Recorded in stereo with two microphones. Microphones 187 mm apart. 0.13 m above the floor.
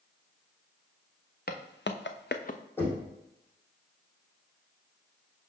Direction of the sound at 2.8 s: 10° left (ahead or behind).